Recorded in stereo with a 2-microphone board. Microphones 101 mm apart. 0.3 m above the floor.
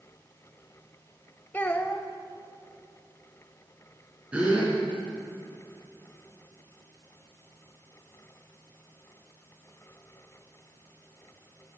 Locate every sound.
1.5 s a child speaking: 20° left (ahead or behind), 0.6 m
4.3 s a gasp: 15° right (ahead or behind), 3 m